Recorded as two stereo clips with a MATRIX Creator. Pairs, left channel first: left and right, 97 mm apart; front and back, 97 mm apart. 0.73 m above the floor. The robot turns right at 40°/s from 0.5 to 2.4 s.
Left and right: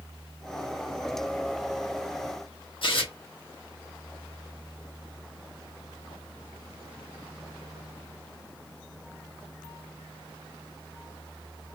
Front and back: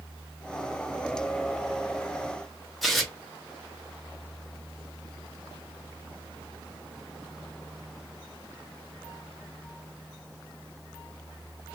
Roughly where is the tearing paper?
Left.